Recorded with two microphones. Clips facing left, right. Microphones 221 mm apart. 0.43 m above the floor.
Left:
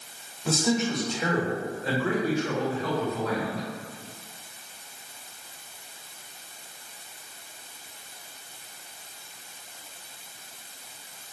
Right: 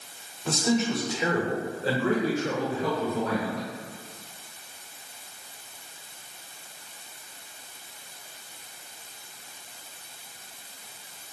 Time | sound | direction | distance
0.5 | a man speaking | 5° left (ahead or behind) | 1.0 m